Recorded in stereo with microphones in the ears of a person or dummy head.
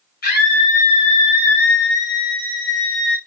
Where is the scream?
50° left (ahead or behind), 8 m; by 3.2 s 70° left (ahead or behind), 8 m.